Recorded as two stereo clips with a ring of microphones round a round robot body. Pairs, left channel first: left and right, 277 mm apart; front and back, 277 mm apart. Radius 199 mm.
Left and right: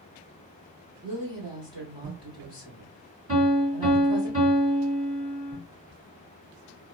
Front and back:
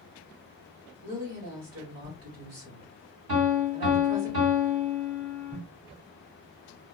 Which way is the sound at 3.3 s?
155° right.